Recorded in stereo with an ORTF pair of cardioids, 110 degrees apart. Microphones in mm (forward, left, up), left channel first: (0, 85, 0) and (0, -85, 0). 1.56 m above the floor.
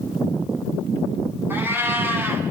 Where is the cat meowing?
15° right, 5 m.